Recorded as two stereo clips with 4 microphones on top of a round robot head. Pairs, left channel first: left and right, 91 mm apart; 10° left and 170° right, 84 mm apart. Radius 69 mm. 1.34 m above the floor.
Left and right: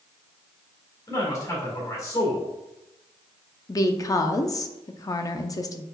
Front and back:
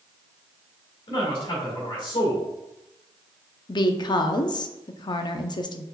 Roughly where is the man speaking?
Ahead left.